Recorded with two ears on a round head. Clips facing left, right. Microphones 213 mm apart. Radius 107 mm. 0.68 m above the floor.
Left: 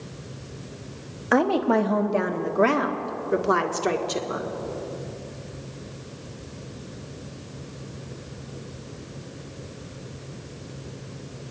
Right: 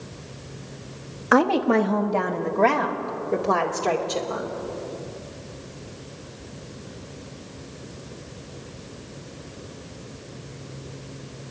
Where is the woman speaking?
5° right (ahead or behind), 1.1 m; by 4.5 s 25° left (ahead or behind), 2 m.